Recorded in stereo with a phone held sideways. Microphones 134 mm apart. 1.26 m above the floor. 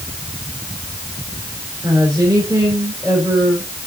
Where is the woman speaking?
25° right (ahead or behind), 4.5 m.